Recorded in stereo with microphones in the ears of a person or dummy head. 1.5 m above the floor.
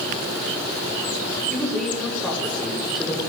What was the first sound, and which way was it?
A woman speaking, 5° left (ahead or behind).